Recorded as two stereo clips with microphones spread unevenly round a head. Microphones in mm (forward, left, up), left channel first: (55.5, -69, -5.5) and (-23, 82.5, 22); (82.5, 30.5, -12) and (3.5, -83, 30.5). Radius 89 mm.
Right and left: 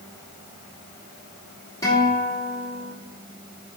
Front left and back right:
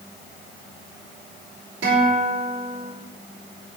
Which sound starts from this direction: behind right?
A guitar, at 1.8 s.